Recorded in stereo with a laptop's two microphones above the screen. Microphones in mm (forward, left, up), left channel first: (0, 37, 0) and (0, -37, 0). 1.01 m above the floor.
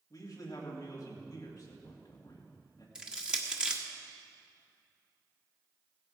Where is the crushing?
10° right (ahead or behind), 1.4 m.